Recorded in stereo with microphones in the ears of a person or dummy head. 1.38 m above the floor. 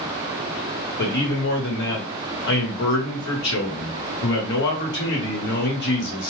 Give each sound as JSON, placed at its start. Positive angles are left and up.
{"t": 1.0, "sound": "a man speaking", "side_deg": 60, "distance_m": 1.2}